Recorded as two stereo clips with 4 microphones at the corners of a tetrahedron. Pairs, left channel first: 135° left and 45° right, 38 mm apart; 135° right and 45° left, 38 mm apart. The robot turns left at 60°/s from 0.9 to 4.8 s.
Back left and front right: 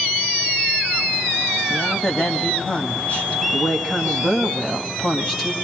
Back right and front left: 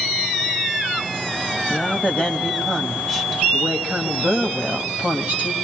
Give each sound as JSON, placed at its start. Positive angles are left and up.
{"t": 1.7, "sound": "a woman speaking", "azimuth_deg": -135, "distance_m": 1.6}